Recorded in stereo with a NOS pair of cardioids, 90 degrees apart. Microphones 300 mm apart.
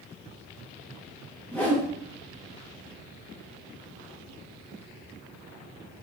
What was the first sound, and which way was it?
A whoosh, 5° left.